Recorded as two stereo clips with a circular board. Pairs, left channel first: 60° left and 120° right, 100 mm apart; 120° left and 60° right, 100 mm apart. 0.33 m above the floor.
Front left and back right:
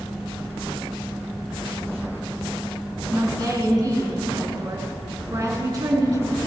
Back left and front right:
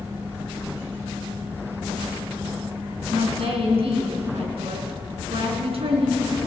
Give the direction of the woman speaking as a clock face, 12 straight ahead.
2 o'clock.